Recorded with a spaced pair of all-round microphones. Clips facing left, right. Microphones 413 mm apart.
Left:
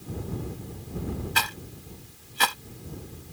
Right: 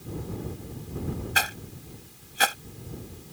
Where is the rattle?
10° left (ahead or behind).